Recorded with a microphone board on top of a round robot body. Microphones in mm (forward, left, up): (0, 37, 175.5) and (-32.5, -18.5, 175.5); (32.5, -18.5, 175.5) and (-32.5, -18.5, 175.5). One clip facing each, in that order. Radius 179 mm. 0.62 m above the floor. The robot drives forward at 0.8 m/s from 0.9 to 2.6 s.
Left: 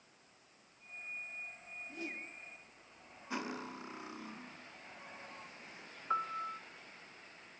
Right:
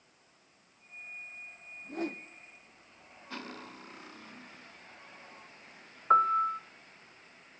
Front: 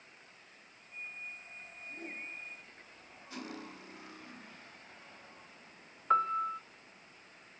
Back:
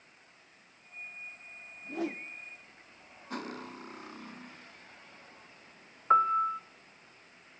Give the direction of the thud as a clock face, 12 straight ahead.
I don't hear a thud.